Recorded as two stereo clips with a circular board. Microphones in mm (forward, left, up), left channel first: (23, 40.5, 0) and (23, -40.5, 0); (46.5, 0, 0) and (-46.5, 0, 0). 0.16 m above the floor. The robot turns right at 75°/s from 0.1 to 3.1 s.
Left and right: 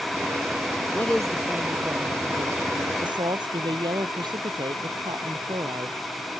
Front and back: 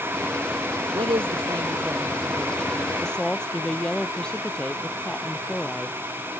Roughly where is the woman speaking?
Right.